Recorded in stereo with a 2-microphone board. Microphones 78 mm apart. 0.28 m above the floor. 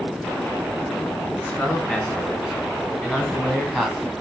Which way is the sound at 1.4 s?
15° left (ahead or behind).